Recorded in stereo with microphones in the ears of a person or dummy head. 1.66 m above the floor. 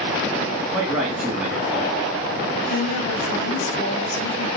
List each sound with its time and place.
0.7 s a man speaking: 5° right (ahead or behind), 2.5 m
2.7 s a woman speaking: 80° left, 1.1 m